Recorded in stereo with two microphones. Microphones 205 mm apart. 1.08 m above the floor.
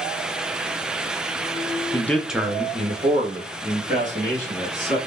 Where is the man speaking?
15° left (ahead or behind), 0.7 m; by 5.0 s 45° right (ahead or behind), 2.0 m.